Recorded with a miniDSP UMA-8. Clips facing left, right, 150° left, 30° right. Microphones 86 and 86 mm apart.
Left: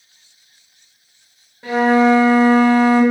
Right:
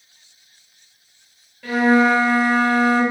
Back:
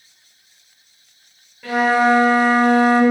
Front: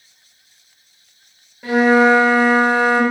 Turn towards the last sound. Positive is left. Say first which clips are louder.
# left 2 dB, front 3 dB
turn(degrees=30)